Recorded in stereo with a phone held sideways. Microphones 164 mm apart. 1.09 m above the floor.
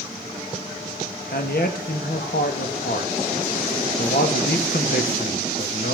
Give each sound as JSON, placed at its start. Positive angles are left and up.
{"t": 1.3, "sound": "a man speaking", "side_deg": 75, "distance_m": 1.6}